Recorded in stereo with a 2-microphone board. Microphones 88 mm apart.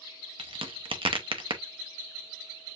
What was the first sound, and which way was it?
A crack, 80° right.